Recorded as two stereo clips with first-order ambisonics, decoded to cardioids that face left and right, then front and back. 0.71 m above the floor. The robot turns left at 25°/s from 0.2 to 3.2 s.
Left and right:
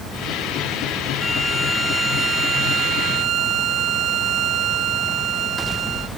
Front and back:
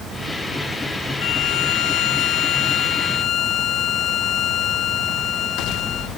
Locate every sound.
1.2 s a violin: 5° left; by 6.1 s 45° right